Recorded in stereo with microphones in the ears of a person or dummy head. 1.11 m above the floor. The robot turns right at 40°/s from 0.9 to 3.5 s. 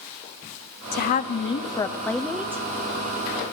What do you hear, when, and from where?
0.9 s a woman speaking: 120° left, 0.5 m; by 2.6 s 170° right, 0.5 m